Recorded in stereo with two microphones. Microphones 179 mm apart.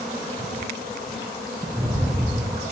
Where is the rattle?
10° right (ahead or behind), 2 m.